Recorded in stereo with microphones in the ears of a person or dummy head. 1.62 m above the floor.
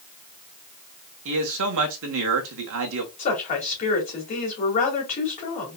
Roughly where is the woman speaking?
Left.